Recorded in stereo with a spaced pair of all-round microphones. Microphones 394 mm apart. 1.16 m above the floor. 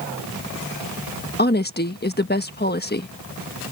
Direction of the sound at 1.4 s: 25° left (ahead or behind).